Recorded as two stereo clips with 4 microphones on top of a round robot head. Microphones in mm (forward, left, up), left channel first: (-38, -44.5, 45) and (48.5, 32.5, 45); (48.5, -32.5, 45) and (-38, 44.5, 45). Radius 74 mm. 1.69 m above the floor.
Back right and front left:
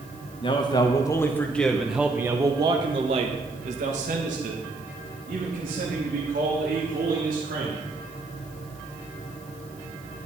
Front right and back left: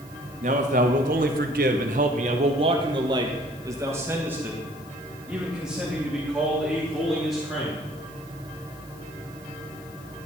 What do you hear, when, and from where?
0.4 s a man speaking: 170° left, 1.4 m; by 7.8 s 45° left, 3.5 m